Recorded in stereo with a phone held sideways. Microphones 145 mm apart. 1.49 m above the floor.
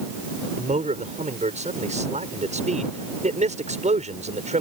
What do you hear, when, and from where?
0.6 s a man speaking: 55° right (ahead or behind)